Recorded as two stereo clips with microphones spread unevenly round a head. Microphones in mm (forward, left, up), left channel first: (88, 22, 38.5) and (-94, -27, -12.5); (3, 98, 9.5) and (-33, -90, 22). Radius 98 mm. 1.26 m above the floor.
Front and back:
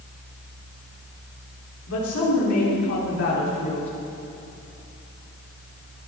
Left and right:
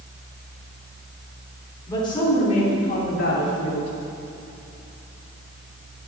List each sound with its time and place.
1.9 s a woman speaking: 5° left, 4 m; by 3.9 s 50° left, 3.5 m